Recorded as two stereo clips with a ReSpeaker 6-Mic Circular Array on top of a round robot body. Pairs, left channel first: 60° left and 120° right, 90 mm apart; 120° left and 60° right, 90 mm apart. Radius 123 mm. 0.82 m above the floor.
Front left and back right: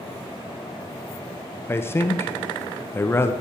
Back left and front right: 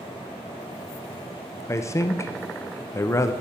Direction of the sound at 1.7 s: 100° left.